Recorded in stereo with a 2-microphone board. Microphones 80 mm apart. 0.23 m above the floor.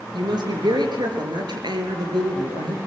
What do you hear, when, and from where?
0.1 s a woman speaking: 65° right (ahead or behind), 4 m